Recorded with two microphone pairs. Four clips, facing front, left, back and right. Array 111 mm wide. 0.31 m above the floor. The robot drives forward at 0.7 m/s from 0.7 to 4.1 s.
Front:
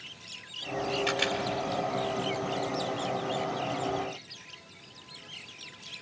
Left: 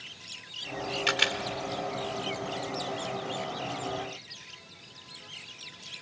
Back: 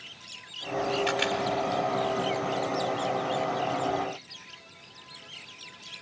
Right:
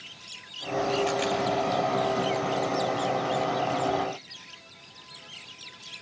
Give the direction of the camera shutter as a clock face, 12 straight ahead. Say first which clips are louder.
Right 4 dB, back 2 dB; 9 o'clock.